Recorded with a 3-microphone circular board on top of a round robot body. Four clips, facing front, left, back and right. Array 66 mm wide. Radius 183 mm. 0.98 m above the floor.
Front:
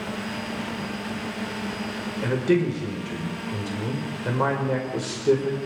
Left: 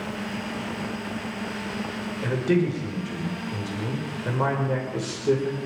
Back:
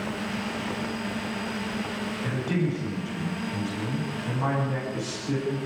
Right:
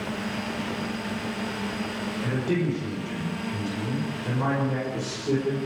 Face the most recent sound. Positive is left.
turn(degrees=30)